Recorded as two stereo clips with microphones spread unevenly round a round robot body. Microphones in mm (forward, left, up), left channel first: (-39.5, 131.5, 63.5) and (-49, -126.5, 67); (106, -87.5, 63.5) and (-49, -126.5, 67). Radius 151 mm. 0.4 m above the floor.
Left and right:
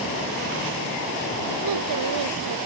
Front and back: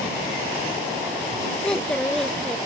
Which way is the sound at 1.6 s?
70° right.